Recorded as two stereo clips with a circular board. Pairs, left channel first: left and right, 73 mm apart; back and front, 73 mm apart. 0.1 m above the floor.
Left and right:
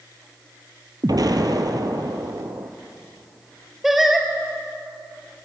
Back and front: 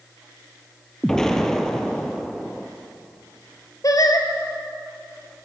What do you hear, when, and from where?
1.0 s an explosion: 100° right, 1.5 m
3.8 s singing: 175° right, 1.9 m